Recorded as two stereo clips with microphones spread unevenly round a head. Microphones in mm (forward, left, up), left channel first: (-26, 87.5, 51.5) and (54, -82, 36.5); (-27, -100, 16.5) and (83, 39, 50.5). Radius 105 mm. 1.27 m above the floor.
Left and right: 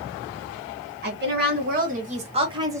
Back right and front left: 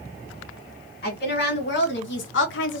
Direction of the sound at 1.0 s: 100° right.